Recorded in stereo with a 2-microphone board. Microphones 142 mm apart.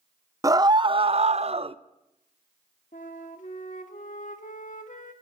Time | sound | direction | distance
0.4 | a scream | 25° right (ahead or behind) | 0.7 m
2.9 | a flute | 65° left (ahead or behind) | 1.6 m